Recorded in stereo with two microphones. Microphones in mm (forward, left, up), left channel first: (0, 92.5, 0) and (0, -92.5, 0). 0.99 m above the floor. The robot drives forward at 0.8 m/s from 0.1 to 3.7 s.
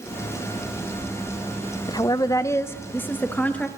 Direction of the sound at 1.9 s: 20° left (ahead or behind).